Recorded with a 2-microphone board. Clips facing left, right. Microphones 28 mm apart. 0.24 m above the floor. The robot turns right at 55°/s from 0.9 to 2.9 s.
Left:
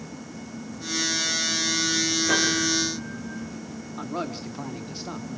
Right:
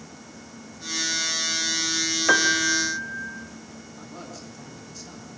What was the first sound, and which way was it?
A piano, 75° right.